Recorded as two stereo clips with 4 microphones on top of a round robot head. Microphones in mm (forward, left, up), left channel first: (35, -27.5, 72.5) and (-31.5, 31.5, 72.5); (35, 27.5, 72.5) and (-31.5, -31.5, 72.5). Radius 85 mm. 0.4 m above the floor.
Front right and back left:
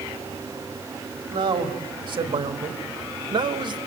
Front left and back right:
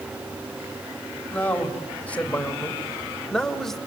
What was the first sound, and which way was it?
A man speaking, 115° left.